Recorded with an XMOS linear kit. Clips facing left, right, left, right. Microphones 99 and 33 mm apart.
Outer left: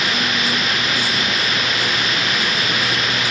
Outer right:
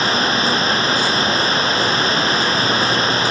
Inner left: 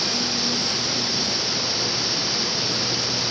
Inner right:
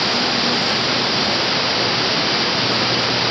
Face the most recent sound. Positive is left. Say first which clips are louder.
# outer right 4 dB, inner right 7 dB
turn(degrees=-35)  # may be behind; listen again after turning